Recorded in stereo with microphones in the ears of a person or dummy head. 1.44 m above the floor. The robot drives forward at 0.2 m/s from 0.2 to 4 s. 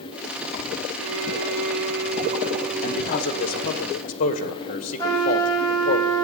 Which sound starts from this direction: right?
A violin, at 1.0 s.